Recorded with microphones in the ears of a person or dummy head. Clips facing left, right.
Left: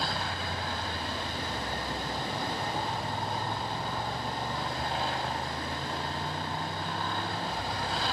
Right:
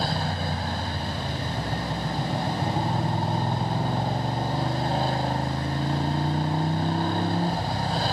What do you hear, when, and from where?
0.0 s a motorcycle: 35° right (ahead or behind)